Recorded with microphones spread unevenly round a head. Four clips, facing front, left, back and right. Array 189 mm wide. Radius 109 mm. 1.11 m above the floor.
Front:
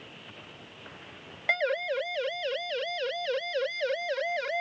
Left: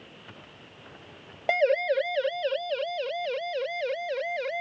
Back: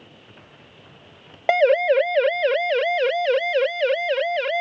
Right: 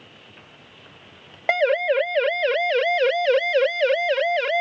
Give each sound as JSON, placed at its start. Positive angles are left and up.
{"t": 1.5, "sound": "a siren", "azimuth_deg": 180}